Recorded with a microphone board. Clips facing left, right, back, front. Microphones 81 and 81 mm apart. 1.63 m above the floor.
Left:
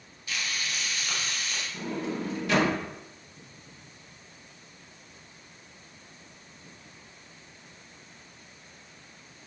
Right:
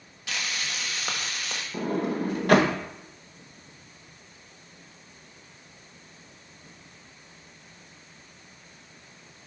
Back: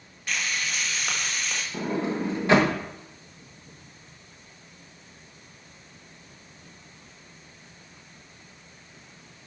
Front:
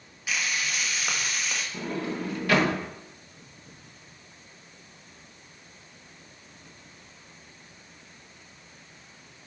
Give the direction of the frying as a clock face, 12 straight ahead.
3 o'clock.